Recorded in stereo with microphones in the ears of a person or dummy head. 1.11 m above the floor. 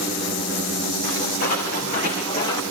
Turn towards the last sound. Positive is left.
turn(degrees=25)  # may be behind; listen again after turning